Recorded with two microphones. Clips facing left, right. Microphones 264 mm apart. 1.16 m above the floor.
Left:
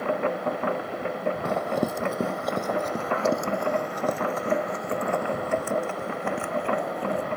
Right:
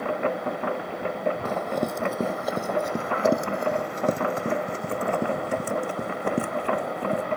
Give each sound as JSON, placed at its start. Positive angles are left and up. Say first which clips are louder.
{"t": 1.4, "sound": "running footsteps", "louder": "left 1 dB", "side_deg": 15}